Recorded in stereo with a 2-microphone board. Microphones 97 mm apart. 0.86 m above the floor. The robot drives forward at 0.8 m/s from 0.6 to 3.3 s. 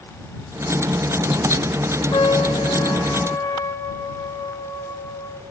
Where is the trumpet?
60° left (ahead or behind), 1.0 m; by 5.4 s 30° left (ahead or behind), 1.7 m.